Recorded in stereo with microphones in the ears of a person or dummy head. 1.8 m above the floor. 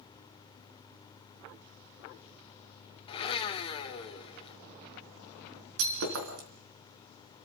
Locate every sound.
3.1 s a blender: 25° left (ahead or behind), 2 m
5.8 s breaking glass: 65° right (ahead or behind), 4.5 m